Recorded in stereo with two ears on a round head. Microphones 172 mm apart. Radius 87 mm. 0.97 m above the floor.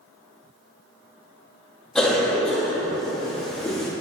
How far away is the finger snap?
No finger snap in this recording.